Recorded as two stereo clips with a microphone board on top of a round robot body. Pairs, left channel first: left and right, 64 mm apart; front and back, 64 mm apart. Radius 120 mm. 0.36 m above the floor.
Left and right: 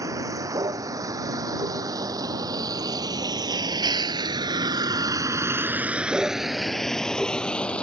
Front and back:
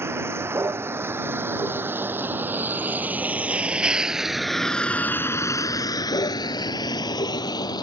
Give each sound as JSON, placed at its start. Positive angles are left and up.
{"t": 0.0, "sound": "a vehicle", "azimuth_deg": -130}